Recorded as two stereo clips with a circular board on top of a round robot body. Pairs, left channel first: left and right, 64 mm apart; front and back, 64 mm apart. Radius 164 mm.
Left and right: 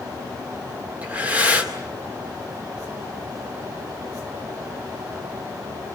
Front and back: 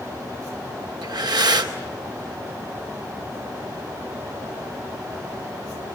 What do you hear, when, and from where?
1.0 s breathing: 160° right, 2 m